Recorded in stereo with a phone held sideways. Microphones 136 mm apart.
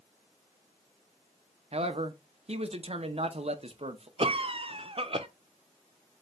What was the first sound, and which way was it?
A man speaking, 50° right (ahead or behind).